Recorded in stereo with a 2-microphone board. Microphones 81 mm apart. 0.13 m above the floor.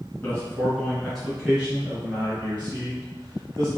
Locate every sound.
0.2 s a man speaking: 20° left (ahead or behind), 1.7 m; by 3.7 s 40° right (ahead or behind), 2.5 m